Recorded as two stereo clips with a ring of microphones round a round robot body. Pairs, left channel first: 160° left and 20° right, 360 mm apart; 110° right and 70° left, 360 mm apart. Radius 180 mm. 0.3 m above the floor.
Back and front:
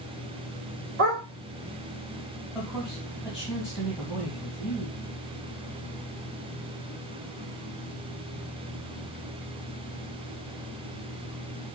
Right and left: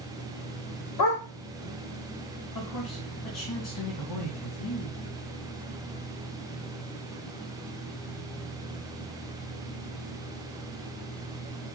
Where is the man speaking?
110° right, 2 m.